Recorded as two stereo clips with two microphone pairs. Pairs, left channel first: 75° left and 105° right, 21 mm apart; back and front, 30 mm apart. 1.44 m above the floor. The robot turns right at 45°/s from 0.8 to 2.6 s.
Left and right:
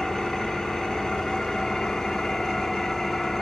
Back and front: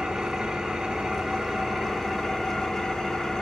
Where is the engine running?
25° left, 1.2 m; by 3.4 s 105° left, 1.2 m.